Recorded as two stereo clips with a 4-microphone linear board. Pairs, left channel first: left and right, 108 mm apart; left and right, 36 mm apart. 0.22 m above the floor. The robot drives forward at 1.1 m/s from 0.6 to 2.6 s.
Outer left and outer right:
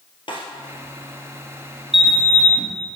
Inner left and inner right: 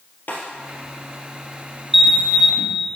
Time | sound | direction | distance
0.3 | a snare drum | 50° left (ahead or behind) | 2.5 m
1.9 | a sliding door | 5° right (ahead or behind) | 0.8 m